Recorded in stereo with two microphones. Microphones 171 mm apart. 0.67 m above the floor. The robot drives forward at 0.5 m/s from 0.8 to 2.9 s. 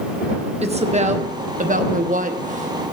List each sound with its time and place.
0.6 s a woman speaking: 40° right (ahead or behind), 1.0 m; by 2.9 s 45° right (ahead or behind), 0.9 m